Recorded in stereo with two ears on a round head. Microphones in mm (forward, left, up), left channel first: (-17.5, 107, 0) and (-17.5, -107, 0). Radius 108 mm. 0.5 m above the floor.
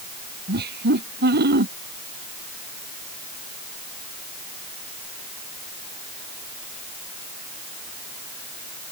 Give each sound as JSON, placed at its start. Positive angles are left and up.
{"t": 0.5, "sound": "laughter", "side_deg": -45}